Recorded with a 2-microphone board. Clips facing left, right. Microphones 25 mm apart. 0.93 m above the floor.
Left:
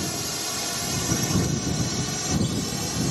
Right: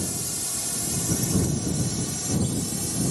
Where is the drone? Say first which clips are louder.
Left 3 dB; 30° left (ahead or behind); by 3.1 s 20° left (ahead or behind).